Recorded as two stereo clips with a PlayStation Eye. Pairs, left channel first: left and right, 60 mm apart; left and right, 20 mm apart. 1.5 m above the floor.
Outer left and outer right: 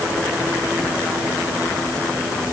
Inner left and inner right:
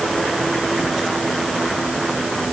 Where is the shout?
No shout in this recording.